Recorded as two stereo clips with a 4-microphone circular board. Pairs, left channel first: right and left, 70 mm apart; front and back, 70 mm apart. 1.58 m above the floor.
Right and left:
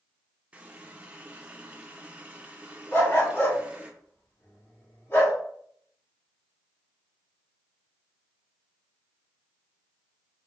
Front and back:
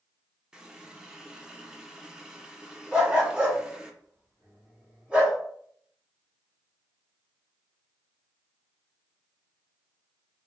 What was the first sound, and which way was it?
A running tap, 120° left.